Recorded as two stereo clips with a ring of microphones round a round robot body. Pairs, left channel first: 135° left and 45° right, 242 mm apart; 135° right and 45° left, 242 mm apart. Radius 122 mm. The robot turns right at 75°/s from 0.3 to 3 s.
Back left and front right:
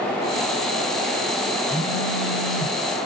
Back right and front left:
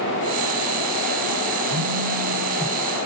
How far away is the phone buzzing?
About 4.5 m.